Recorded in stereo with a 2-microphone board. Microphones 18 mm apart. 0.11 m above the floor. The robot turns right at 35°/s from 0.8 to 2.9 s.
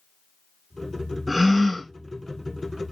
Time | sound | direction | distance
1.3 | a gasp | 5° right (ahead or behind) | 0.7 m